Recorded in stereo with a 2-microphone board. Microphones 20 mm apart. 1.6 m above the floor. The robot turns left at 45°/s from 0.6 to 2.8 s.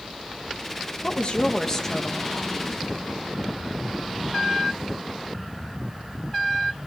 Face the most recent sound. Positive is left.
turn(degrees=-20)